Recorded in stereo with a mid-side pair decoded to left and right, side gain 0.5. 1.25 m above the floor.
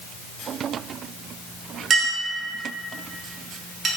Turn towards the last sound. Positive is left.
turn(degrees=-45)